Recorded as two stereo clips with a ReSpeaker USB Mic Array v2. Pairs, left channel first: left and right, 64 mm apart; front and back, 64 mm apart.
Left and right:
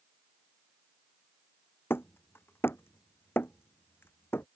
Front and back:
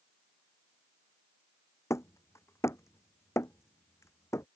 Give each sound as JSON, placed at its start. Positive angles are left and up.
{"t": 1.9, "sound": "hammering", "azimuth_deg": 40}